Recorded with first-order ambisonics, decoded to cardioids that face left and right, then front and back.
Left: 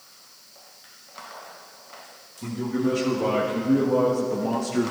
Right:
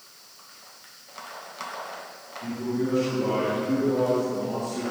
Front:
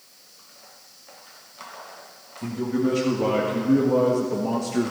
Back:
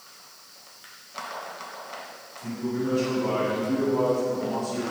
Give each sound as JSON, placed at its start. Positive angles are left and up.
{"t": 2.4, "sound": "a man speaking", "azimuth_deg": 25, "distance_m": 2.5}